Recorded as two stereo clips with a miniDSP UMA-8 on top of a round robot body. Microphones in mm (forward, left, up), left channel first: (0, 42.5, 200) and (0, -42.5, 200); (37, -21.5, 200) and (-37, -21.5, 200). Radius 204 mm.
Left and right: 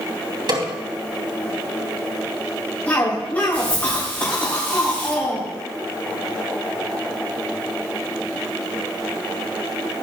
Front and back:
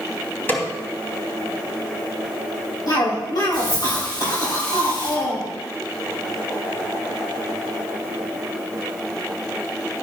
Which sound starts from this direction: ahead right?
A snare drum, at 0.5 s.